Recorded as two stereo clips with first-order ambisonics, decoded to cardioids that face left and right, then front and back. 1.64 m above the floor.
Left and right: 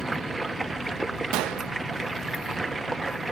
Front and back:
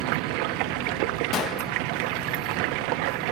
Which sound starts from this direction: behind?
Running water, at 0.0 s.